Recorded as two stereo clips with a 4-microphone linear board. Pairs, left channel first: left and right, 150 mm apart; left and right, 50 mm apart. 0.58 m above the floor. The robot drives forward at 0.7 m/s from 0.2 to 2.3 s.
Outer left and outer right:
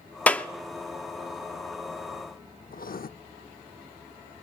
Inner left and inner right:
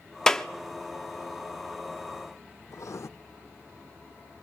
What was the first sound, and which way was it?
A clap, 10° left (ahead or behind).